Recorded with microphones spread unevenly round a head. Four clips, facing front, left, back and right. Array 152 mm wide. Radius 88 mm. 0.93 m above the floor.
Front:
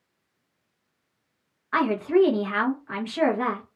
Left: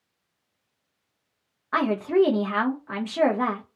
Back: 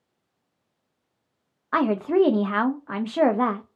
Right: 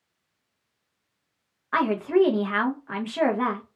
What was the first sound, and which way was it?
A woman speaking, 170° left.